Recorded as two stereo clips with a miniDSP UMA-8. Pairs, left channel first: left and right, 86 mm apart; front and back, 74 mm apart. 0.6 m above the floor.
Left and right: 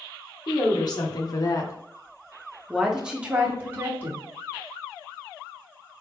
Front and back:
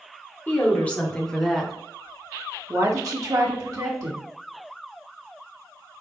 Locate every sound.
0.5 s a woman speaking: 60° left, 1.2 m; by 4.3 s 150° right, 1.4 m